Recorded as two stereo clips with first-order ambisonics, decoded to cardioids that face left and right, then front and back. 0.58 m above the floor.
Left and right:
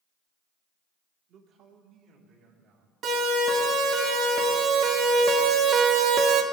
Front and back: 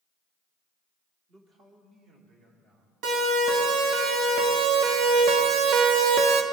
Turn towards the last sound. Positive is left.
turn(degrees=-140)